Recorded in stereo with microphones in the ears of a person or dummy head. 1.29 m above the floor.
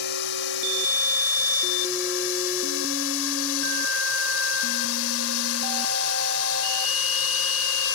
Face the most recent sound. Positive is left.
turn(degrees=75)  # may be behind; listen again after turning